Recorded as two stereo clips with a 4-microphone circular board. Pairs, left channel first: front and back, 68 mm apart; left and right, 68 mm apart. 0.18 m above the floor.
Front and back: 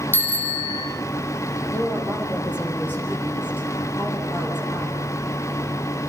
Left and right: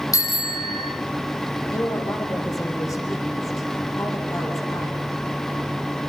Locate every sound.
0.1 s a bicycle bell: 60° left, 5 m
1.7 s a woman speaking: 60° left, 7 m